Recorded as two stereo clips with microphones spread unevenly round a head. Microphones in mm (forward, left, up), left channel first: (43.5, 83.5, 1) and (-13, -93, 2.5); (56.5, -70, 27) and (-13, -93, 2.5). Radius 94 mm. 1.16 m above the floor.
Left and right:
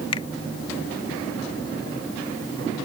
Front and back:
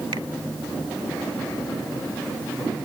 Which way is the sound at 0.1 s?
140° left.